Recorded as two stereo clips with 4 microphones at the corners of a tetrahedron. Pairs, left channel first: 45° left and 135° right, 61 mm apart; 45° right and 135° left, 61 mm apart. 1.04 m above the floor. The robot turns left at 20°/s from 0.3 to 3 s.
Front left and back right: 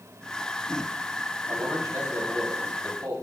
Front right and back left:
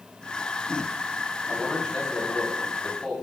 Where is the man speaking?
115° right, 3 m; by 3.1 s 145° right, 3 m.